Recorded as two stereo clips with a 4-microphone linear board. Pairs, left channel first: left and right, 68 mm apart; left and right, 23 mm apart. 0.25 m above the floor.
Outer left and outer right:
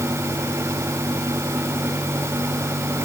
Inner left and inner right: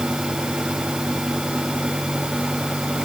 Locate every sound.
Only background noise.